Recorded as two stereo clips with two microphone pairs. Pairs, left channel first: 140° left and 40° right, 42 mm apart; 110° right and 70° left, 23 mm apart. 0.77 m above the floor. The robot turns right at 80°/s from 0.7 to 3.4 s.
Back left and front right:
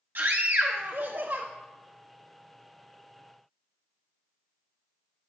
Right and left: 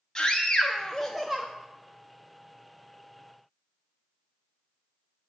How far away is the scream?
About 0.8 m.